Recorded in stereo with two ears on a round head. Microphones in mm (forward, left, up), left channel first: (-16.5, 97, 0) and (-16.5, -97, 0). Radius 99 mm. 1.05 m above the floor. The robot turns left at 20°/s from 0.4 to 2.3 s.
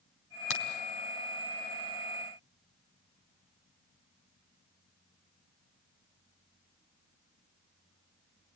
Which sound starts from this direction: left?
A crack, at 0.5 s.